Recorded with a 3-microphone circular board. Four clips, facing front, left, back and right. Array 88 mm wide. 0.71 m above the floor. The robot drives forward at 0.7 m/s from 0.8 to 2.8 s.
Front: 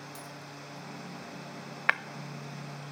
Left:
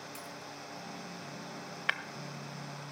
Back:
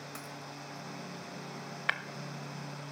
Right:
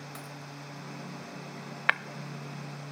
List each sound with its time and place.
0.1 s a dropped coin: 140° right, 1.4 m
1.9 s breaking glass: 55° right, 0.5 m; by 2.0 s 65° right, 0.5 m